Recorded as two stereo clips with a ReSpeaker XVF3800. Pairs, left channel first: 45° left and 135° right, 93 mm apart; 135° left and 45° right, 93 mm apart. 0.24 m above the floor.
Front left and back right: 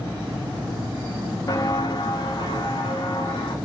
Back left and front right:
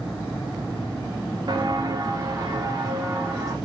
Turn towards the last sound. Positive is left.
turn(degrees=10)